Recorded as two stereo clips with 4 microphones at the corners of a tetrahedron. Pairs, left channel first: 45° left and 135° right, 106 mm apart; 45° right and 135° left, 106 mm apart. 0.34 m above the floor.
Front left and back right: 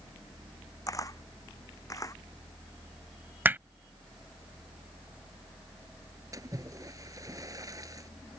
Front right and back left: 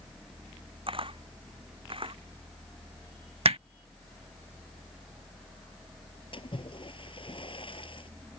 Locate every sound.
0.9 s a camera shutter: 105° left
3.5 s hammering: 155° left
6.3 s a splash: 80° right